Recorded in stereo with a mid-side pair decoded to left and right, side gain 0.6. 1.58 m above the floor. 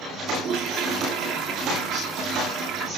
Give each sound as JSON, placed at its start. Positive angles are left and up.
{"t": 0.3, "sound": "a toilet flushing", "azimuth_deg": -65, "distance_m": 0.9}